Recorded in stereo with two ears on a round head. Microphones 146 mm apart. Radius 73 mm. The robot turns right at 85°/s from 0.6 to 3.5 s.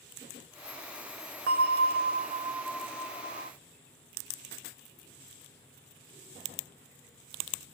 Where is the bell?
115° right, 0.6 m; by 3.5 s 60° left, 0.6 m.